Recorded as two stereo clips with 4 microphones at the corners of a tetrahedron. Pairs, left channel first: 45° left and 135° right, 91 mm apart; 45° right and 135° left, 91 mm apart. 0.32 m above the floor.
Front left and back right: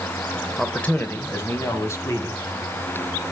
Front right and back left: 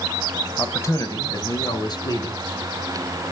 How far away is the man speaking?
About 0.9 m.